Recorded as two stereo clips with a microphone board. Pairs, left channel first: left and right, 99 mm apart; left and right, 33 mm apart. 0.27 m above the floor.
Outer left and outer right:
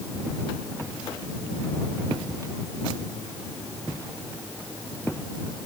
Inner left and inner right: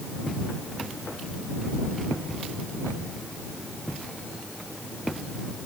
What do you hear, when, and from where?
Only background noise.